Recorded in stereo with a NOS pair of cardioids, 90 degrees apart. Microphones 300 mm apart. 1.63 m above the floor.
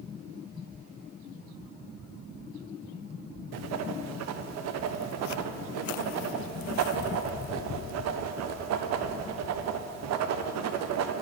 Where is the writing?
60° right, 0.5 m.